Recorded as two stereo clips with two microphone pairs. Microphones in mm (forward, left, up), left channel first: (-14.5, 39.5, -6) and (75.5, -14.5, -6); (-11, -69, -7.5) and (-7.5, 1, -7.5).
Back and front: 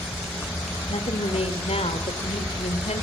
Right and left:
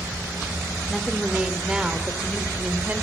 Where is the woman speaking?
175° left, 3.5 m; by 3.0 s 160° left, 4.5 m.